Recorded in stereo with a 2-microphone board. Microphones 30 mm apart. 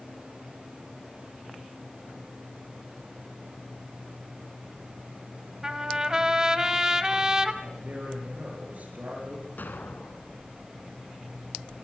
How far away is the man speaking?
About 6.5 m.